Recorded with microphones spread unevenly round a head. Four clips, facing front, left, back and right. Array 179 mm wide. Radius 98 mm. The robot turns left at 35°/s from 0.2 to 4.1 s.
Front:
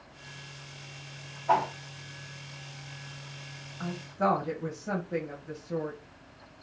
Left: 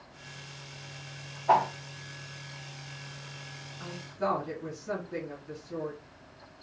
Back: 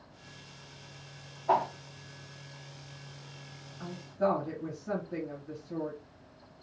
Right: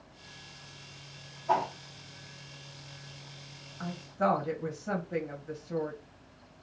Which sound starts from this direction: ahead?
A woman speaking, at 3.8 s.